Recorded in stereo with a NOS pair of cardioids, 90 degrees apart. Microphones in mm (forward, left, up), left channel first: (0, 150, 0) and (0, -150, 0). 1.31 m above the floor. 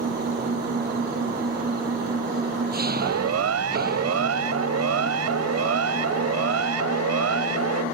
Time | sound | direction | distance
0.0 | an engine running | 30° right | ?
3.0 | a siren | 55° right | ?